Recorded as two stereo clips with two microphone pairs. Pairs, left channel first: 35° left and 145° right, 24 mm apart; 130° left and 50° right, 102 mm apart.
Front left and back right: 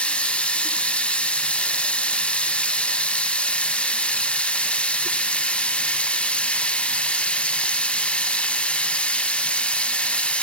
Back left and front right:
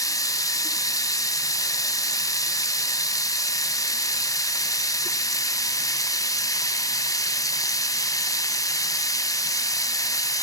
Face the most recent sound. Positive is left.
turn(degrees=70)